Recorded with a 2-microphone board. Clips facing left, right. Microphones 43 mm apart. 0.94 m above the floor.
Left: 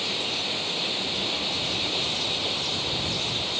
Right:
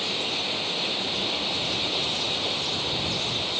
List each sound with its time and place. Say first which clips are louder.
0.0 s running water: right 1 dB; 5° right (ahead or behind)